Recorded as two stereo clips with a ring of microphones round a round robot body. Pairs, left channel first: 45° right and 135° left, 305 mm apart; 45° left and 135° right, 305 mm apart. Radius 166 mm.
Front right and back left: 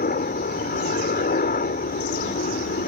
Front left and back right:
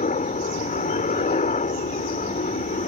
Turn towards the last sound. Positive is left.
turn(degrees=-5)